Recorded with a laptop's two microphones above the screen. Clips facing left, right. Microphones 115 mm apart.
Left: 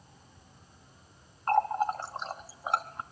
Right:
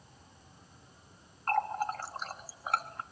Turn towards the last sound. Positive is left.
turn(degrees=25)  # may be behind; listen again after turning